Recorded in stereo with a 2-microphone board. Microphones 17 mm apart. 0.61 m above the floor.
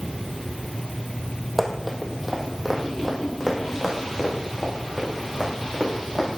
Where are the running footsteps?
10° right (ahead or behind), 1.3 m; by 6.4 s 25° left (ahead or behind), 4.5 m.